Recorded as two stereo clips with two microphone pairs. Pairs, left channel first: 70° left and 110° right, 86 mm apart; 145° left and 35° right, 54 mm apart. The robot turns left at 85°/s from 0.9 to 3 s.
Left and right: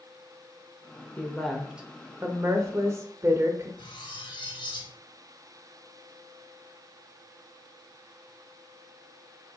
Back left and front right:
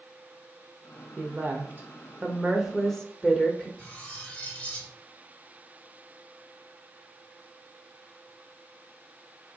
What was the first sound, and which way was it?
A woman speaking, 10° left.